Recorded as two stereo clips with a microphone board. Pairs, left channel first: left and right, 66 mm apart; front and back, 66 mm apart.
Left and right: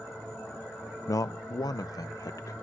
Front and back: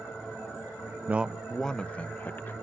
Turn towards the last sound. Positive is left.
turn(degrees=55)